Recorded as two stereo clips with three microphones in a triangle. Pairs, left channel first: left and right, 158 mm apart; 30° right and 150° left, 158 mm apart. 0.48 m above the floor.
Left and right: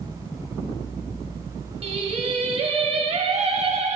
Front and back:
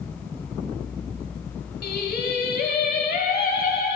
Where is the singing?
40° right, 0.9 m.